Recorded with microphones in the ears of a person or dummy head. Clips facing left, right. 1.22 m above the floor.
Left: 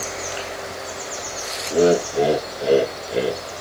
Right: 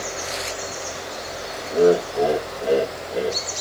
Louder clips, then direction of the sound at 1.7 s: Even; 25° left (ahead or behind).